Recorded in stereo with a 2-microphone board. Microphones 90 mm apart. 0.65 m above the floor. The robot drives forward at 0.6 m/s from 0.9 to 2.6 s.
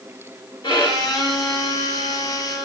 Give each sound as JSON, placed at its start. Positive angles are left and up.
{"t": 0.6, "sound": "a violin", "side_deg": 65, "distance_m": 1.4}